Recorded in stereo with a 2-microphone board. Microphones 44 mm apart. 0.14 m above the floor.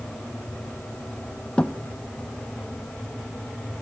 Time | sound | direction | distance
1.6 | a thud | 25° left (ahead or behind) | 1.5 m